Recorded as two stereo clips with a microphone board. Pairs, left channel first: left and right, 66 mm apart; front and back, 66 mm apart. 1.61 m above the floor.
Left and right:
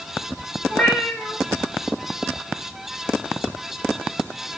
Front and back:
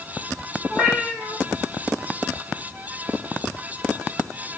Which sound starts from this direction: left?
A cat meowing, at 0.7 s.